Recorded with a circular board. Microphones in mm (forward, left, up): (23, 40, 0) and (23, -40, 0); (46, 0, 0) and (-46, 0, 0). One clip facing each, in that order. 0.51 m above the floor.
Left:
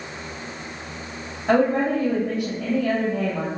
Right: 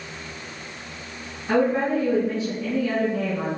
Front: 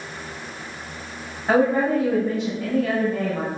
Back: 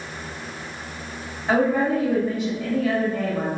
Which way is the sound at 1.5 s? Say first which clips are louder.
Left 2 dB, front 1 dB; 75° left.